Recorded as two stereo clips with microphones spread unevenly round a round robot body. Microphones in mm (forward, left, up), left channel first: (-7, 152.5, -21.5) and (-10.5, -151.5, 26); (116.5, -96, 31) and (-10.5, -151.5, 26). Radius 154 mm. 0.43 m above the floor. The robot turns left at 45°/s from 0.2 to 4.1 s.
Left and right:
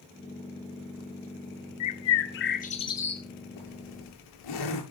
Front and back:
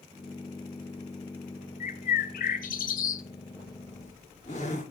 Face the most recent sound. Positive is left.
turn(degrees=85)